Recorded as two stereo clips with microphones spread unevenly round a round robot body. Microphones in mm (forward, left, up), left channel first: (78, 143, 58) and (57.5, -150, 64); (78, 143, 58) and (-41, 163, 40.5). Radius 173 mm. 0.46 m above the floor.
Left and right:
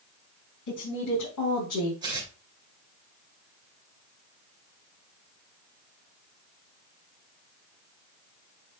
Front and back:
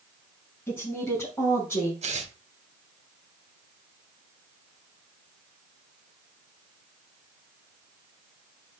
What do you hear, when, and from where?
0.7 s a woman speaking: 60° left, 6 m; by 1.9 s 65° left, 5 m
2.0 s tearing paper: 170° right, 2.5 m